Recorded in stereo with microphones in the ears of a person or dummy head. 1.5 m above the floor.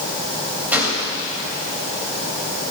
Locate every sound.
0.7 s a gunshot: 15° right (ahead or behind), 3 m